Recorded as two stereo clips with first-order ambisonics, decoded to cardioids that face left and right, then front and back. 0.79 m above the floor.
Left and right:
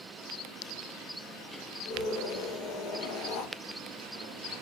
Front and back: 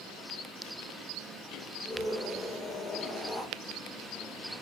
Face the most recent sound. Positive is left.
turn(degrees=85)